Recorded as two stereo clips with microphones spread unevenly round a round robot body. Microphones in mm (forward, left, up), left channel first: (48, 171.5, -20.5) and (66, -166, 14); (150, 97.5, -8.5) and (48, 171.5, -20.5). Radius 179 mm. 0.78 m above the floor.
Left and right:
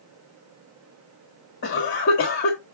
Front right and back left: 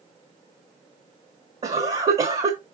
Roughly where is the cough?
Behind left.